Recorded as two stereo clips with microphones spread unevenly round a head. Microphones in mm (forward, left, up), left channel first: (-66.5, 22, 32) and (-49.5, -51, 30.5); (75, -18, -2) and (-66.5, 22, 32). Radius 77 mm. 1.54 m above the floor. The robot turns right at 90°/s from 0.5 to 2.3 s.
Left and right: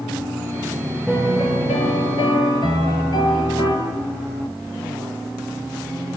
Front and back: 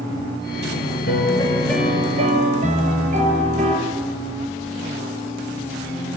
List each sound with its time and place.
1.1 s a piano: 15° left, 6 m; by 3.8 s 125° left, 6 m